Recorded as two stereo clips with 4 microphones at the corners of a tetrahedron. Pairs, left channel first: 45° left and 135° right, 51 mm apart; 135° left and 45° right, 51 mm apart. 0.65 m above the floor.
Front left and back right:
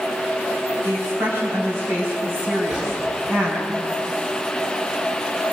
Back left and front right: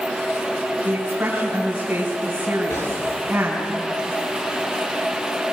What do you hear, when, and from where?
0.8 s a woman speaking: 110° right, 5 m
2.7 s a gunshot: 145° left, 10 m